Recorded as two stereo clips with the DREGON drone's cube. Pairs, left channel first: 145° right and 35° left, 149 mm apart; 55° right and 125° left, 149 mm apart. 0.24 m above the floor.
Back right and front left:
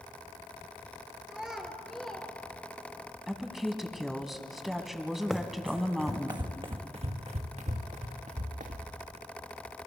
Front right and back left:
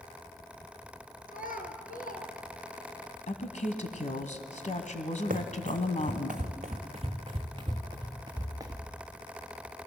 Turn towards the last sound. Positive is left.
turn(degrees=60)